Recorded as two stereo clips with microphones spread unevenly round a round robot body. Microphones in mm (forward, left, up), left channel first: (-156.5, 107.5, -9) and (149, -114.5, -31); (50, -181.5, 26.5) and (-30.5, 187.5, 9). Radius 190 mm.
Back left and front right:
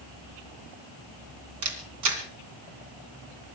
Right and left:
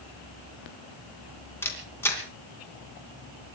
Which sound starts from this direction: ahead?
A camera shutter, at 1.6 s.